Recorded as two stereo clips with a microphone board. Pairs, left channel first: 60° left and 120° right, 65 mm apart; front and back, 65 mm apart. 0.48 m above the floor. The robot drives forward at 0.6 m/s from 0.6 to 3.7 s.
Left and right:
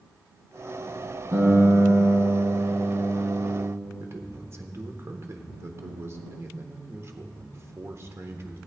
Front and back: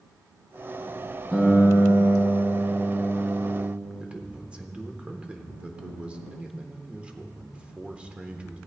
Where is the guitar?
90° right, 4 m; by 3.7 s 110° right, 4.5 m.